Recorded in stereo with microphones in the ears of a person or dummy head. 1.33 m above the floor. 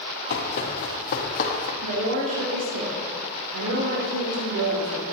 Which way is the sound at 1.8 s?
75° right (ahead or behind).